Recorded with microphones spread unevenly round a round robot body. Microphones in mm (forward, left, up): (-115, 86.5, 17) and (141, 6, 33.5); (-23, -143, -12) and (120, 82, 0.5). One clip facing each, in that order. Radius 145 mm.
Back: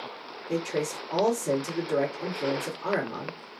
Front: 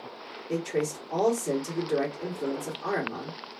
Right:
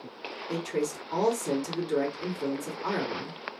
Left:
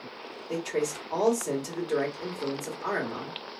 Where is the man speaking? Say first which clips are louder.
Even, left 1 dB; 135° right, 1.5 m.